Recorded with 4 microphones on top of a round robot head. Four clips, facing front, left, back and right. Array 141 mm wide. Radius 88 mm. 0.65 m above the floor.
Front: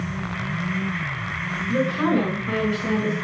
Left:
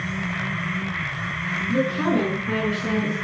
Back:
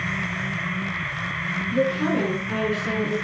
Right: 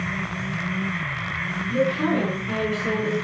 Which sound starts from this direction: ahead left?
A woman speaking, at 1.7 s.